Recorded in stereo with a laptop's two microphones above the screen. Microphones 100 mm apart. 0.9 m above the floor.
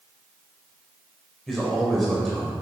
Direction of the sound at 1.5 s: Centre (ahead or behind).